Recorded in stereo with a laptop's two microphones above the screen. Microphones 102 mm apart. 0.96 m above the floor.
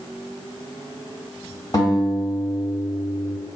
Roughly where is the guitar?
Left.